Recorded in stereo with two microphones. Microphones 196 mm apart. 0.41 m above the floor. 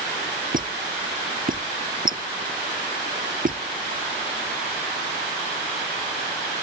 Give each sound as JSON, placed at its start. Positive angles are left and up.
{"t": 0.5, "sound": "a squeak", "side_deg": -45}